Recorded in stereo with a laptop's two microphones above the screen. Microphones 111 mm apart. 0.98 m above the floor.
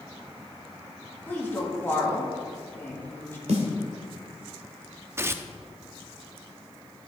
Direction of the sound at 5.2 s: 25° right (ahead or behind).